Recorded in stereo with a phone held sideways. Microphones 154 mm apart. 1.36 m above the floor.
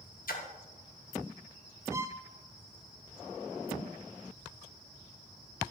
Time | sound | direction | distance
0.3 | a splash | 65° left (ahead or behind) | 1.4 m
1.9 | a violin | 20° right (ahead or behind) | 0.5 m